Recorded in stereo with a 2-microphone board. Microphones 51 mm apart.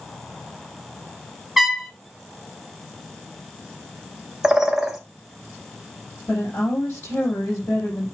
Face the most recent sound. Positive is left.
turn(degrees=60)  # may be behind; listen again after turning